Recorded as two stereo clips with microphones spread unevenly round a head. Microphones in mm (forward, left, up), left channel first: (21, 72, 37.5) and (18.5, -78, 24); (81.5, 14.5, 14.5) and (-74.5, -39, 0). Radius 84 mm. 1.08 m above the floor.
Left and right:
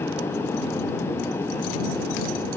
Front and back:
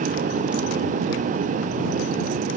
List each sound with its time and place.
Only background noise.